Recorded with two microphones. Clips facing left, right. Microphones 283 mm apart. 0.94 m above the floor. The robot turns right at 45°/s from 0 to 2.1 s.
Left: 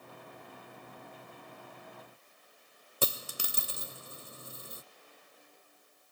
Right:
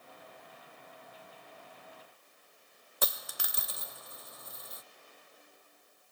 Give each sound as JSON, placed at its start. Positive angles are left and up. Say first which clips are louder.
{"t": 3.0, "sound": "a dropped coin", "louder": "left 4 dB", "side_deg": 35}